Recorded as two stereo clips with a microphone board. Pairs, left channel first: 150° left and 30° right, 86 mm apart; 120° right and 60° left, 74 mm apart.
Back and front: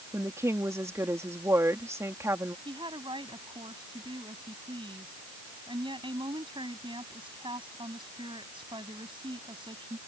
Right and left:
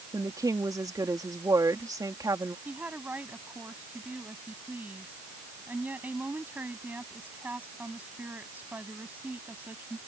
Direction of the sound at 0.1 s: 25° left.